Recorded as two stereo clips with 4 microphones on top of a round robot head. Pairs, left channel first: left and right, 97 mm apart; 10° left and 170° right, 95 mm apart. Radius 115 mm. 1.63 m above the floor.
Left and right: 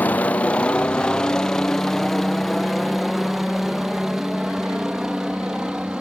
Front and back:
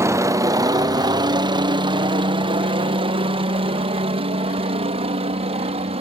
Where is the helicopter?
155° left; by 6.0 s 175° right.